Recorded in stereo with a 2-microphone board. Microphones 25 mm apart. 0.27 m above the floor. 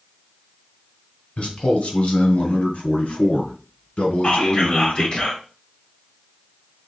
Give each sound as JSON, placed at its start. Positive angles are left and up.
{"t": 1.4, "sound": "a man speaking", "side_deg": 60, "distance_m": 1.9}
{"t": 4.2, "sound": "whispering", "side_deg": 45, "distance_m": 1.6}